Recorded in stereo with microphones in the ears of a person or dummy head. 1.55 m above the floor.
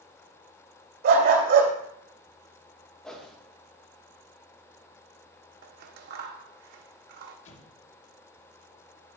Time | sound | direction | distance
1.0 | a dog barking | 60° right (ahead or behind) | 2.5 m
3.0 | a whoosh | 5° left (ahead or behind) | 2.5 m
5.6 | scissors | 60° right (ahead or behind) | 1.3 m
7.5 | an explosion | 40° left (ahead or behind) | 1.4 m